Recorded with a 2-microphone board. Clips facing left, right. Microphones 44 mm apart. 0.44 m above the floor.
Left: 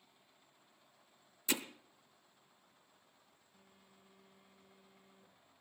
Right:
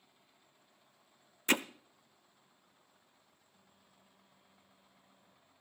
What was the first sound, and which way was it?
Hammering, 50° right (ahead or behind).